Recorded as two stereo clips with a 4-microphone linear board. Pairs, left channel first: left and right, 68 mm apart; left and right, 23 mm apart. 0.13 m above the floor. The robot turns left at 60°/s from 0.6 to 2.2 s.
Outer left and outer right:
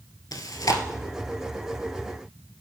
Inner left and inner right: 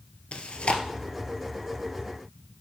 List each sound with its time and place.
0.3 s chewing: 65° left (ahead or behind), 1.2 m